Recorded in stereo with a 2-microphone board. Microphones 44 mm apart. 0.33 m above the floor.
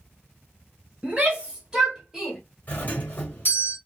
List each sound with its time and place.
1.0 s a shout: 30° right (ahead or behind), 1.4 m; by 2.4 s 5° right (ahead or behind), 1.3 m
2.7 s a doorbell: 40° left (ahead or behind), 1.7 m